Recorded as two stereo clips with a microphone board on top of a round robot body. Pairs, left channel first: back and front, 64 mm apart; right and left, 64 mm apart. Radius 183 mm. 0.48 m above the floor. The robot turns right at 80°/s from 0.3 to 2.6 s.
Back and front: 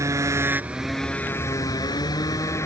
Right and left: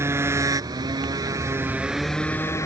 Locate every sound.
0.0 s a motorcycle: 40° left; by 2.7 s 135° right